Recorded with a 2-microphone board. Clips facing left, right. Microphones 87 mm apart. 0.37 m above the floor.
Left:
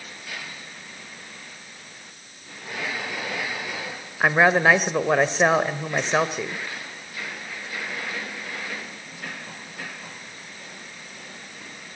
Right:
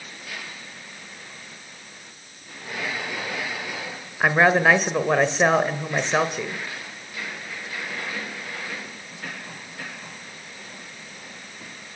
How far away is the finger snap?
I don't hear a finger snap.